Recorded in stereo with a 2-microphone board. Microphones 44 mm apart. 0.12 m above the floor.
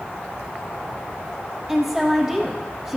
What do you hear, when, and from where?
1.7 s a woman speaking: 5° right (ahead or behind), 3 m